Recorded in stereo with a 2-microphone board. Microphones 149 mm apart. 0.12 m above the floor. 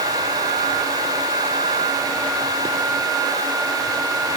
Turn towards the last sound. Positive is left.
No sound to turn to.